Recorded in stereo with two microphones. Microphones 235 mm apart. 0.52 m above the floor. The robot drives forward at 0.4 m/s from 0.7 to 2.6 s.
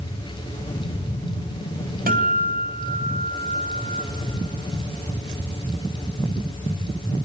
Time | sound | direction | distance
2.1 | a guitar | 40° right (ahead or behind) | 3 m